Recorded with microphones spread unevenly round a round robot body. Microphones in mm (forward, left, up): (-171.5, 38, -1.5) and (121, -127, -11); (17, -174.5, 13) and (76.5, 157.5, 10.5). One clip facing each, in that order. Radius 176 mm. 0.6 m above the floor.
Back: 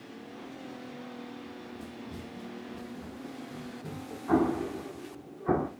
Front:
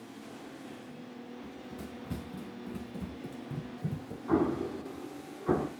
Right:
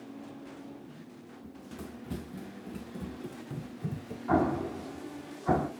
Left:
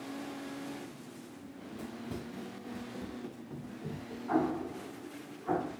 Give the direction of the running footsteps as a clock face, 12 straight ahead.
1 o'clock.